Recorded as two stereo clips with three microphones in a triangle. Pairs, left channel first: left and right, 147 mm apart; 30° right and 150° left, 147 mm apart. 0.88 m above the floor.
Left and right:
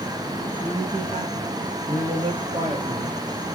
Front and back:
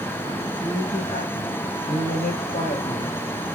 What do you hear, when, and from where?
0.6 s a man speaking: 50° right, 3.5 m; by 3.1 s 20° right, 4.5 m